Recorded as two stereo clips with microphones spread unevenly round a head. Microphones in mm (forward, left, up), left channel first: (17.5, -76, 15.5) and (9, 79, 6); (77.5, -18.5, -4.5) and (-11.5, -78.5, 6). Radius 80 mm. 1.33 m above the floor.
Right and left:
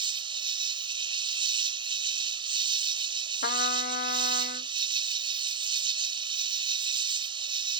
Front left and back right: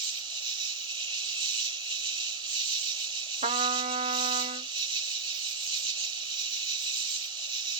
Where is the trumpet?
125° right.